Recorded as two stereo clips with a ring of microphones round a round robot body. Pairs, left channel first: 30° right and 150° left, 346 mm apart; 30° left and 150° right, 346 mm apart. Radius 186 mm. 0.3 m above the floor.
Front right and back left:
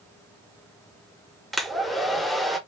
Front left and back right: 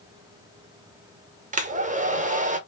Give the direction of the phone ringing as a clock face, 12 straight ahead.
I don't hear a phone ringing.